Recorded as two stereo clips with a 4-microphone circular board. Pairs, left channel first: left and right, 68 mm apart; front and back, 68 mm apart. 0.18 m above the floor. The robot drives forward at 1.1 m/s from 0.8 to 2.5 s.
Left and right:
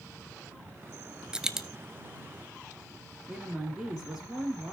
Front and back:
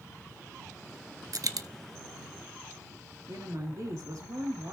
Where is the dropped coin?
165° right, 0.7 m; by 1.7 s 170° right, 1.0 m.